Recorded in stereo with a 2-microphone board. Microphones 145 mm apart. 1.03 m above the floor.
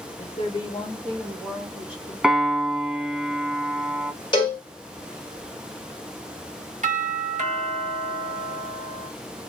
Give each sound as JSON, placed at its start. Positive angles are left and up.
{"t": 0.2, "sound": "a woman speaking", "side_deg": 50, "distance_m": 0.9}
{"t": 2.2, "sound": "a piano", "side_deg": -5, "distance_m": 0.9}
{"t": 4.3, "sound": "a cowbell", "side_deg": 35, "distance_m": 2.5}
{"t": 6.8, "sound": "a doorbell", "side_deg": -55, "distance_m": 1.5}